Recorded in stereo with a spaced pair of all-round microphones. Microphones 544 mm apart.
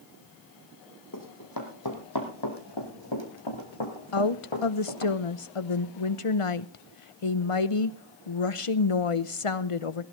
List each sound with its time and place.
1.1 s running footsteps: 35° left (ahead or behind), 3 m; by 5.1 s 65° left (ahead or behind), 4 m
4.1 s a woman speaking: 70° left (ahead or behind), 0.9 m